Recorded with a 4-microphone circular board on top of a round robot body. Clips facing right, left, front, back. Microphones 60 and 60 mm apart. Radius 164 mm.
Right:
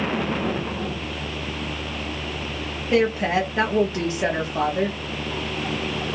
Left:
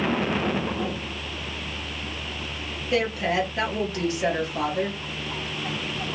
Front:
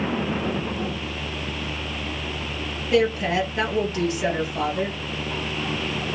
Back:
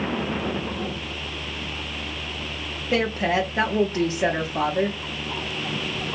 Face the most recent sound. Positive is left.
turn(degrees=-140)